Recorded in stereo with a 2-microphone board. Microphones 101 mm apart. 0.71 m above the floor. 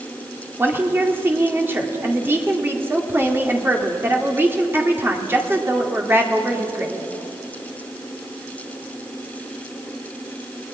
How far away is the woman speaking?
About 2 m.